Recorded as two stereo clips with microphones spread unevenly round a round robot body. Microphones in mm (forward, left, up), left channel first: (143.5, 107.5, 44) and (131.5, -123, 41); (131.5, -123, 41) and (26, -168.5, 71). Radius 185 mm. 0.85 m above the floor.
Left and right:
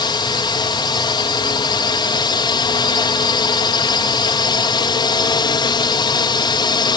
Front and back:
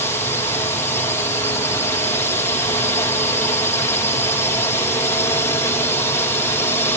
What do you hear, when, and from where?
0.0 s a drone: 30° left